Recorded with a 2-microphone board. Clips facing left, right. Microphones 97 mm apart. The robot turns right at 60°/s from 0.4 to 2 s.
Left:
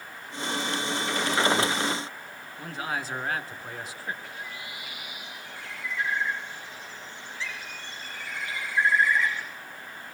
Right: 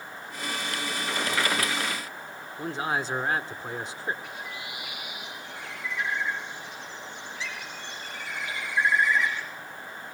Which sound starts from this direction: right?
A man speaking, at 2.6 s.